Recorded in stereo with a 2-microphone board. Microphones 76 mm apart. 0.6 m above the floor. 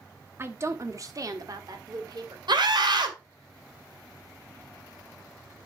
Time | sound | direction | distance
0.4 | a woman speaking | 30° right (ahead or behind) | 1.1 m
2.5 | a scream | 65° right (ahead or behind) | 2.5 m